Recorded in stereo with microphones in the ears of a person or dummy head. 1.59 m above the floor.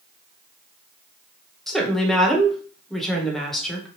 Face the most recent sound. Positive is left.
turn(degrees=5)  # may be behind; listen again after turning